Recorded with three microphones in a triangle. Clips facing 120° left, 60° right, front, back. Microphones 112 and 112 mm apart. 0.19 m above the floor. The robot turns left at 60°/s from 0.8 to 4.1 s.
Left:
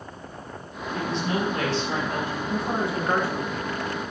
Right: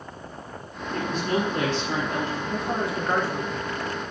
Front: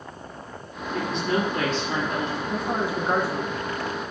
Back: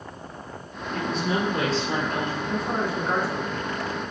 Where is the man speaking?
95° left, 2 m; by 4.1 s straight ahead, 2 m.